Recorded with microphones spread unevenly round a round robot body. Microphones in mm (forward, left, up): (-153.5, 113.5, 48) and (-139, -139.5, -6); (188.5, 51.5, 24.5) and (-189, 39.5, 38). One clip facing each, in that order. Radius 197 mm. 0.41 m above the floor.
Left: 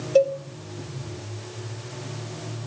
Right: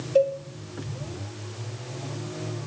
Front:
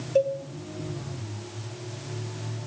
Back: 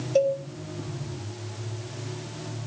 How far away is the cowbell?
About 2 m.